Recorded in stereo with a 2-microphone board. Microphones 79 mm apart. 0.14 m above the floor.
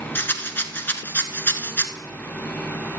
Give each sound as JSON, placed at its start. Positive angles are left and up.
{"t": 0.1, "sound": "a rattle", "side_deg": 30, "distance_m": 0.9}